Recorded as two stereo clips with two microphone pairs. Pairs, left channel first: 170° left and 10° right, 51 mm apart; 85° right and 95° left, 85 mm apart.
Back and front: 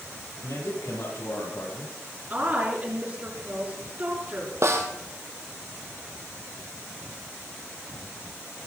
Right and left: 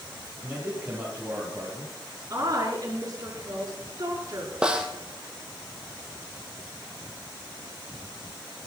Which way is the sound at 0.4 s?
165° left.